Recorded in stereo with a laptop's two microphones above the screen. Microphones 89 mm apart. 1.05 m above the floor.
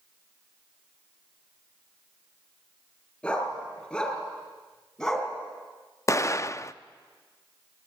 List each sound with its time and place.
3.2 s a dog barking: 15° left (ahead or behind), 5 m; by 5.3 s 10° left (ahead or behind), 4 m
6.1 s an explosion: 35° left (ahead or behind), 0.5 m